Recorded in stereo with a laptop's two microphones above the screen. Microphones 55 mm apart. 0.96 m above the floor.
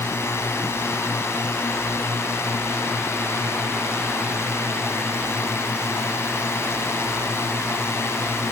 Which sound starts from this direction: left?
A drone, at 0.0 s.